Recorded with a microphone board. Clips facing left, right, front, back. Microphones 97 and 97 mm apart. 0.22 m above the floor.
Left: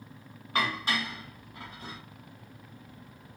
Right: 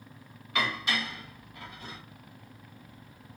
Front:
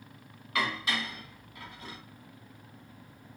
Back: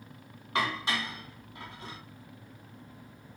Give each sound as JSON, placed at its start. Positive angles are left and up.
{"t": 0.6, "sound": "dishes clattering", "azimuth_deg": 130, "distance_m": 1.0}